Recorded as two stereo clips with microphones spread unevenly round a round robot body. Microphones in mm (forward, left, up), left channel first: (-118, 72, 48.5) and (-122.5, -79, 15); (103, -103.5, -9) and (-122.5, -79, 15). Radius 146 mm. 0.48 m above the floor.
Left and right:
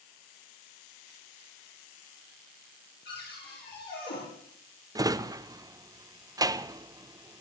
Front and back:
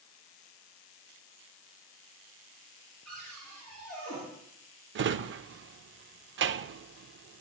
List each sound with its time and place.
3.0 s a cupboard door: 80° left, 9 m
5.0 s a drawer: 150° right, 0.7 m